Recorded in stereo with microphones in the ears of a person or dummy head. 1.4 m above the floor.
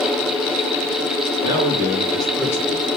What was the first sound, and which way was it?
A man speaking, 25° right (ahead or behind).